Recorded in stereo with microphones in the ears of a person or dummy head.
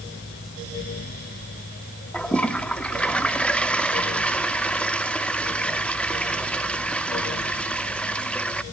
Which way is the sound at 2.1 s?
5° left (ahead or behind).